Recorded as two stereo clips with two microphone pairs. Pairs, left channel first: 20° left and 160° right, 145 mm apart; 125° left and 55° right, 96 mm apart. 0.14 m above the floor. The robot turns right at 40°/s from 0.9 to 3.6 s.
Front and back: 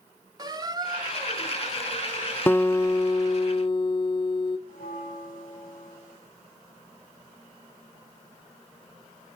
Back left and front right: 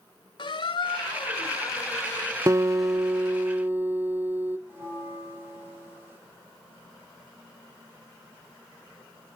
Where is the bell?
15° left, 8 m.